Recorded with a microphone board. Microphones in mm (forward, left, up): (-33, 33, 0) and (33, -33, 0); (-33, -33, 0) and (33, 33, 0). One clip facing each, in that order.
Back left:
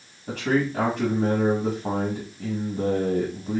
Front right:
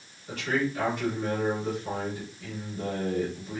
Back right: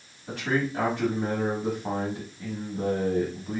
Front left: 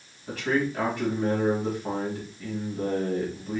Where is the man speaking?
140° left, 2.5 m.